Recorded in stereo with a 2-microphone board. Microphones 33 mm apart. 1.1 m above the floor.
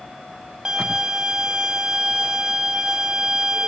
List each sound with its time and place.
0.7 s a violin: 20° right (ahead or behind), 1.1 m